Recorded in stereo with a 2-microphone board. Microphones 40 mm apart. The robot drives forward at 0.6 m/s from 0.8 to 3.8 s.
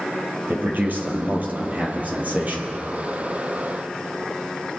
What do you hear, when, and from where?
0.5 s a man speaking: 50° right (ahead or behind), 3 m; by 2.7 s 40° right (ahead or behind), 3.5 m